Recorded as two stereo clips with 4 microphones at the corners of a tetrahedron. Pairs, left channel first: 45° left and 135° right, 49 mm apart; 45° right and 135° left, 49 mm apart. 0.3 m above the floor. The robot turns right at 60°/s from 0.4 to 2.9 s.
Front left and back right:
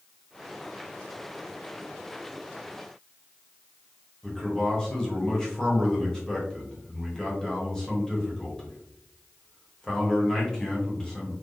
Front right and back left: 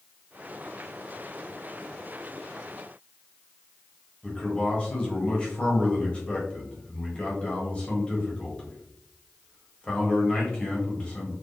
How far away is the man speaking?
About 1.2 m.